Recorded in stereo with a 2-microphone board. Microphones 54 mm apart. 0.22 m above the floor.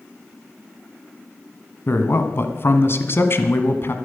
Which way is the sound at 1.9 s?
50° left (ahead or behind).